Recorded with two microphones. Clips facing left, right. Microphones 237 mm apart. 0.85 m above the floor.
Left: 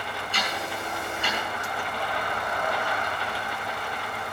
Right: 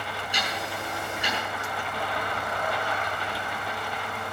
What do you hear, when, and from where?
0.3 s ticking: 15° right (ahead or behind), 7 m